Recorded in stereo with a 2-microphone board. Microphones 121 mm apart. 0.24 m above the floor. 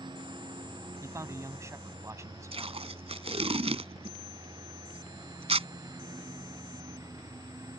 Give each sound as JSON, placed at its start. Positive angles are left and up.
{"t": 0.0, "sound": "a lawn mower", "side_deg": -40}
{"t": 1.0, "sound": "a man speaking", "side_deg": -25}
{"t": 2.5, "sound": "tape being pulled", "side_deg": -55}